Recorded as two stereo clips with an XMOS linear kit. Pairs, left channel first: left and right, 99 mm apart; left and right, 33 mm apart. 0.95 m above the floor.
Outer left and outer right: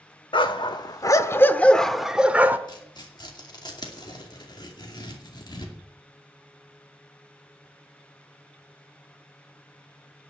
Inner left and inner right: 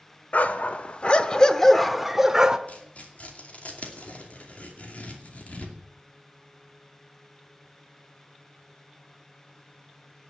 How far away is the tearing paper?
About 2.5 m.